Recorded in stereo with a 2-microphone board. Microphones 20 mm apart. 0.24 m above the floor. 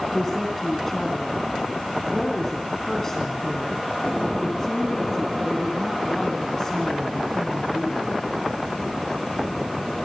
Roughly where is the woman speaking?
Centre.